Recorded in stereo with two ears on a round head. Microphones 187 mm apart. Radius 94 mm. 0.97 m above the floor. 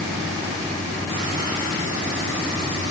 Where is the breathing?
I don't hear breathing.